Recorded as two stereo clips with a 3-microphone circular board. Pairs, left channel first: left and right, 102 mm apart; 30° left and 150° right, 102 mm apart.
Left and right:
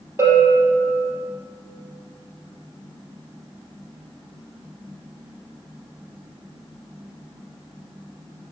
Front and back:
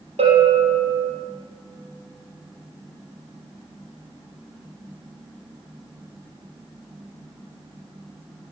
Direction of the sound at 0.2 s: 150° right.